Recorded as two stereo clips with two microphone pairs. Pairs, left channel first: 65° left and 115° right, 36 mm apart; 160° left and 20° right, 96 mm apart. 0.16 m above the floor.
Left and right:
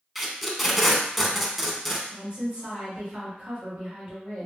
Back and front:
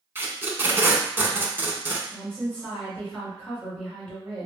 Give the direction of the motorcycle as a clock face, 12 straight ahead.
I don't hear a motorcycle.